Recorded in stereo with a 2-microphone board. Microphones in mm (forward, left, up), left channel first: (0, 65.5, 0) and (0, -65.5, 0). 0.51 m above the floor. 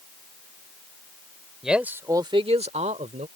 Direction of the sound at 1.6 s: 5° right (ahead or behind).